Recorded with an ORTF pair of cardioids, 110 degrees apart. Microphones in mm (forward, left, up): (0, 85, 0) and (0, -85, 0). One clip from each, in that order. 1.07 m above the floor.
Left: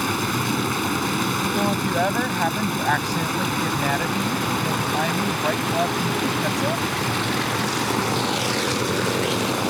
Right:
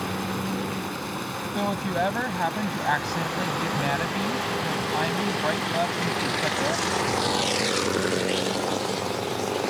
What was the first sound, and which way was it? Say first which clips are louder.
Running water: left 6 dB; 60° left.